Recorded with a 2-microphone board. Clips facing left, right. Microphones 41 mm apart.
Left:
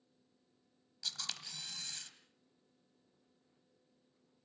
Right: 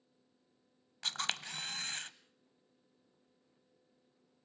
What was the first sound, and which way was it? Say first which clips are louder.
A camera shutter: right 7 dB; 50° right (ahead or behind).